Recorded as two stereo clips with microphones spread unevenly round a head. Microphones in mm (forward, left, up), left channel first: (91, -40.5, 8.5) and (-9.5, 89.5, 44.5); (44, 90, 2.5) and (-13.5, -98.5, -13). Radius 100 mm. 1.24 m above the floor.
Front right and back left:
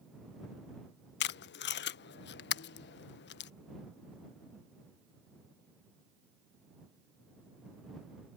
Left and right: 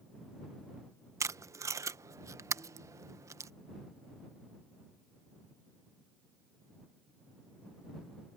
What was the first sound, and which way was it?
Tape being pulled, 30° right.